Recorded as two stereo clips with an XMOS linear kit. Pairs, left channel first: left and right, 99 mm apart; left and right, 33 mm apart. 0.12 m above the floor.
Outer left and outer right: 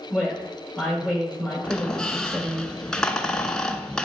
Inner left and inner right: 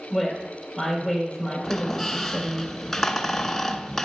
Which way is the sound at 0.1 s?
20° right (ahead or behind).